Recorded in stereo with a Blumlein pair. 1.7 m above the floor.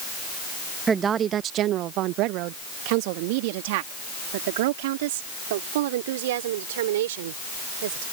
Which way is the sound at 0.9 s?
15° right.